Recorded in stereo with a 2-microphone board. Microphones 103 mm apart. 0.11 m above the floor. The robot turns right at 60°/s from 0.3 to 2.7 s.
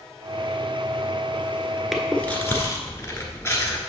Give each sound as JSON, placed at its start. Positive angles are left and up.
{"t": 1.9, "sound": "chewing", "azimuth_deg": 0, "distance_m": 1.2}